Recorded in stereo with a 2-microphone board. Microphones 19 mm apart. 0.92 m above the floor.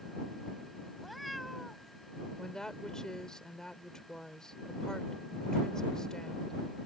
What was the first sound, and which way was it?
A cat meowing, centre (ahead or behind).